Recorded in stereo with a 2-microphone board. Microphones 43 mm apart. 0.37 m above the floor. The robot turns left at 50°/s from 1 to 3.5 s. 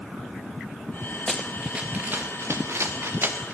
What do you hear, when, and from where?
1.3 s running footsteps: 5° left (ahead or behind), 1.3 m; by 3.5 s 40° right (ahead or behind), 2 m